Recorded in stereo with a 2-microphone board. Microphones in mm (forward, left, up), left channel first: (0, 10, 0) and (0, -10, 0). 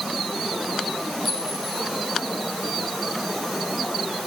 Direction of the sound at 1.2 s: 5° left (ahead or behind).